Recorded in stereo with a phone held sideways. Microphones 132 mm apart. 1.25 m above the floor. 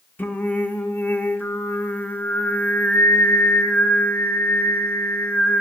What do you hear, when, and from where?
0.2 s singing: 15° left (ahead or behind), 1.0 m